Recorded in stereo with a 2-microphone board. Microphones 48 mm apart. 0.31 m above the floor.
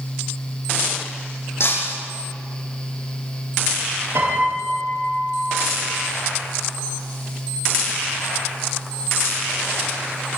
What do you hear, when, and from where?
1.6 s breaking glass: 65° left (ahead or behind), 7 m
4.2 s a piano: 70° right (ahead or behind), 7.5 m